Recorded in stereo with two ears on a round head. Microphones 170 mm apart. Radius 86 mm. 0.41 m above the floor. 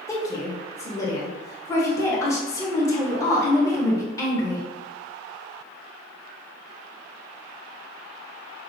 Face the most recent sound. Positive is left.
turn(degrees=15)  # may be behind; listen again after turning